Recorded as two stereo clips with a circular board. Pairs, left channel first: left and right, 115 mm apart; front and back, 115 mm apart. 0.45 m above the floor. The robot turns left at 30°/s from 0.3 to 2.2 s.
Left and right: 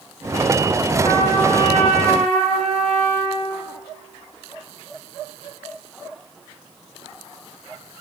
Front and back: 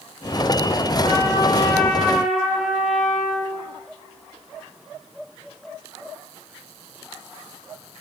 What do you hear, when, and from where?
1.0 s a trumpet: 55° right, 9 m; by 3.5 s 90° right, 9 m